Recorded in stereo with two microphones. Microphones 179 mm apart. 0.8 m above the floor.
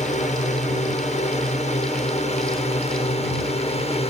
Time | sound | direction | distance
0.0 | a drone | 40° left (ahead or behind) | ?